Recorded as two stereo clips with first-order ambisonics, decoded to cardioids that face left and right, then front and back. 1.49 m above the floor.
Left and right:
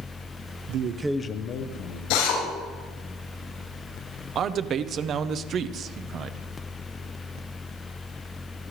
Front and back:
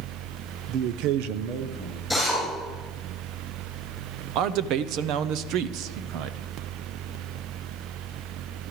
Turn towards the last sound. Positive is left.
turn(degrees=-145)